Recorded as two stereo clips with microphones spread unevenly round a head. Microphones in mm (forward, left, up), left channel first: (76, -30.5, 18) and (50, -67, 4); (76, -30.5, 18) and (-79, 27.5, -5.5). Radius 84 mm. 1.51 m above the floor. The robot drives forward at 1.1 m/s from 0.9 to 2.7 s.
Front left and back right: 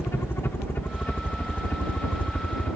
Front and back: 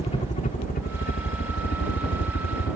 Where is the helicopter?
35° left; by 2.8 s 5° right.